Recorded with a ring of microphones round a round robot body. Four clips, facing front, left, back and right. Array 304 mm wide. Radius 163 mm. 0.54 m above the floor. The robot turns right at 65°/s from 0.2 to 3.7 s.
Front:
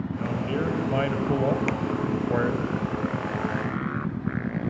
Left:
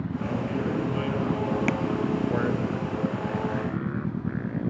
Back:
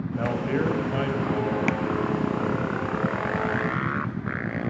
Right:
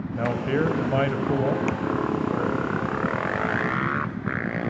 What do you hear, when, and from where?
0.1 s a man speaking: 125° right, 4.5 m; by 2.7 s 40° left, 4.5 m
1.7 s tapping: 155° left, 0.8 m; by 1.8 s 160° left, 0.8 m